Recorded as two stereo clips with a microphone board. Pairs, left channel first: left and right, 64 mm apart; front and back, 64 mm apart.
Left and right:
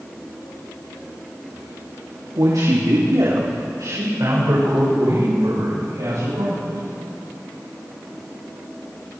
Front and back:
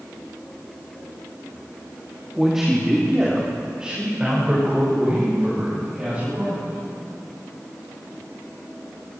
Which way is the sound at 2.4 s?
95° right.